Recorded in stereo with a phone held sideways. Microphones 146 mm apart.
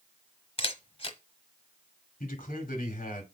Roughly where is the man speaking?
Left.